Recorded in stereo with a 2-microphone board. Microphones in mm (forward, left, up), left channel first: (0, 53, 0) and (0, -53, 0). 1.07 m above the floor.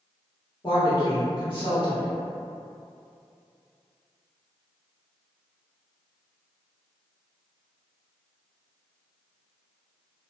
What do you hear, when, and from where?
0.6 s a woman speaking: 35° left (ahead or behind), 1.2 m